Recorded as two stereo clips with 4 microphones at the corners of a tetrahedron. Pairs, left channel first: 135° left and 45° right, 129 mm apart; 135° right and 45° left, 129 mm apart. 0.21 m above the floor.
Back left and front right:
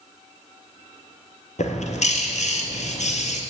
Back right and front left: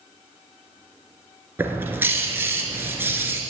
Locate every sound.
1.6 s a bird: 120° left, 1.5 m